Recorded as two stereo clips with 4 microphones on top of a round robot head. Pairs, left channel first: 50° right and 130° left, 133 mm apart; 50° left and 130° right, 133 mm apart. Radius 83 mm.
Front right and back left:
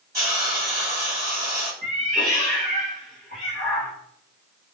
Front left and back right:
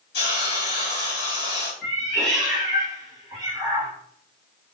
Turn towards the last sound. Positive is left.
turn(degrees=135)